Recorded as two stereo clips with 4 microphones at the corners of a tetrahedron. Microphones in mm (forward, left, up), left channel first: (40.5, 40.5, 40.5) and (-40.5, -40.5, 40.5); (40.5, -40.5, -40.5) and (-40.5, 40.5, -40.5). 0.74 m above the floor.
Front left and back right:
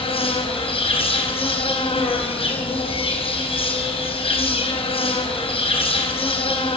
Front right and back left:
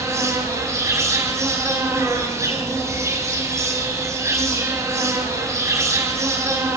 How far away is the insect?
About 4.5 m.